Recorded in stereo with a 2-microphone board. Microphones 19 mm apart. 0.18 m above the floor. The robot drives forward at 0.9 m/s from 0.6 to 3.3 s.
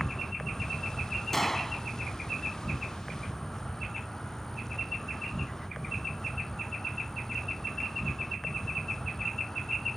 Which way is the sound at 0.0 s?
20° left (ahead or behind).